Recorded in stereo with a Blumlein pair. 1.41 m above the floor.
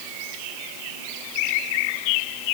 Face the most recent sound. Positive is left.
No sound to turn to.